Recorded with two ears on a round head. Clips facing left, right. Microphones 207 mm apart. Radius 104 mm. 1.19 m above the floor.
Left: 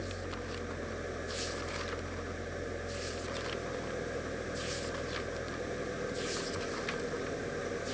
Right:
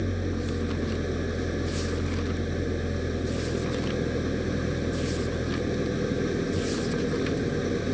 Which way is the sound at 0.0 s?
55° right (ahead or behind).